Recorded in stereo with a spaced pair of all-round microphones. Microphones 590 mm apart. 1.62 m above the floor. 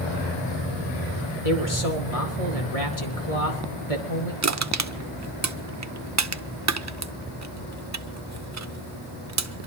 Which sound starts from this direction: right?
Crushing, at 4.4 s.